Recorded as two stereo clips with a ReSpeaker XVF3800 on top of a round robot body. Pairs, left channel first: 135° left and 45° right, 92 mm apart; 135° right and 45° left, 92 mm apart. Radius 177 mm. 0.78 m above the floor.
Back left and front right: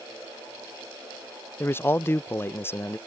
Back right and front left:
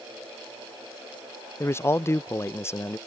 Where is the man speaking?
175° right.